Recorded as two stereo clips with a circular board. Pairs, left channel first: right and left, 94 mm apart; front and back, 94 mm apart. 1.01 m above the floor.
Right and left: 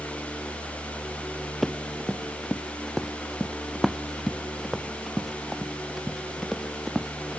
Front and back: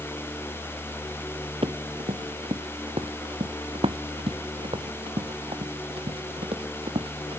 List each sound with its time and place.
1.6 s running footsteps: 175° right; by 7.4 s 175° left